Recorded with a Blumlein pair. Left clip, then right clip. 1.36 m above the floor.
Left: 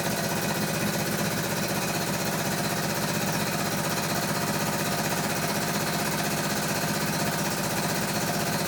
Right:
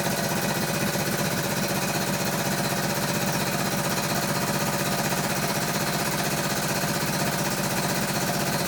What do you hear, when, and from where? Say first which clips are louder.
0.0 s a machine running: right 2 dB; 5° right, 0.9 m